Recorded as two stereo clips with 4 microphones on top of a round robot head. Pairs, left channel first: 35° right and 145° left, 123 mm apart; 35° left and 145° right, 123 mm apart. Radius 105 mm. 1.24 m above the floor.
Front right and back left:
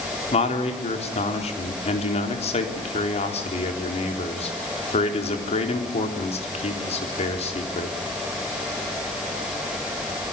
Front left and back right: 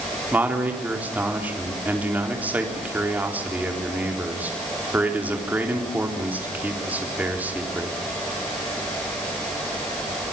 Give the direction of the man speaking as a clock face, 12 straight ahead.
2 o'clock.